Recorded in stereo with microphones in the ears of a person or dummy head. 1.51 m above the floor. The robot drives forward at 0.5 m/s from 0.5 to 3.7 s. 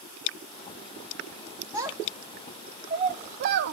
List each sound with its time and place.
1.7 s a child speaking: 20° right (ahead or behind), 1.1 m; by 3.7 s 55° right (ahead or behind), 0.5 m